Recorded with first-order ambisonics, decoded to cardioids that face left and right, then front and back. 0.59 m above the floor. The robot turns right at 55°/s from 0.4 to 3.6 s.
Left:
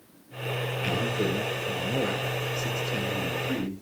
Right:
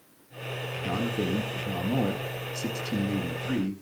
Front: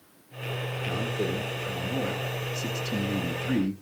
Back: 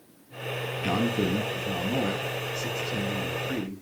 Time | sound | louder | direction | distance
0.8 | a man speaking | left 2 dB, back 3 dB | 170° right | 5 m